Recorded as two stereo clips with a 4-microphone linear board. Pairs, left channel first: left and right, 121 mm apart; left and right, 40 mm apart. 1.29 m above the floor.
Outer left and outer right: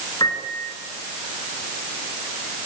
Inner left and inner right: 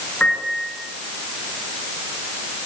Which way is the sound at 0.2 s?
35° left (ahead or behind).